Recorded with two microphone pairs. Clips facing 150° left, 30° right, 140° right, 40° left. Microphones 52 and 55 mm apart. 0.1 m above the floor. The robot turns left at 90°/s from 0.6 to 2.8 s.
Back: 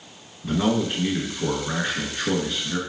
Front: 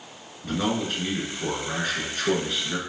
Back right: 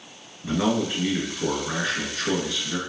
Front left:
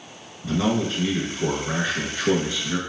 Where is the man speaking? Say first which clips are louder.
Back 4 dB, front left 1 dB; 135° right, 1.1 m; by 2.8 s 30° left, 1.1 m.